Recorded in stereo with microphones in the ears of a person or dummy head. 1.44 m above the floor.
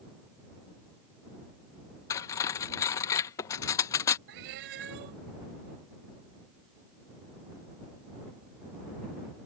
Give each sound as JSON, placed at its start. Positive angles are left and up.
{"t": 2.1, "sound": "cutlery clinking", "side_deg": 15}
{"t": 4.3, "sound": "a cat meowing", "side_deg": -65}